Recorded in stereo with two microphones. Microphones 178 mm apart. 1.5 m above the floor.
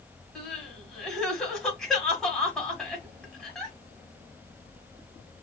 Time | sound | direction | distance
0.3 | crying | centre (ahead or behind) | 1.6 m